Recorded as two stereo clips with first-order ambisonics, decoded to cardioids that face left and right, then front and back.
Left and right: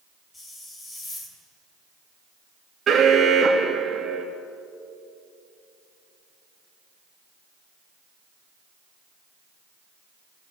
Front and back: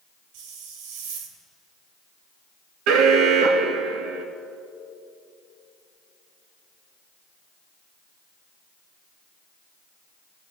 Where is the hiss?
165° left, 3 m.